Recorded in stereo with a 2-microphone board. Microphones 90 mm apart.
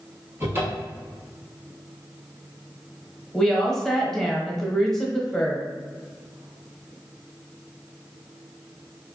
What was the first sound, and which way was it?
A cupboard door, 30° right (ahead or behind).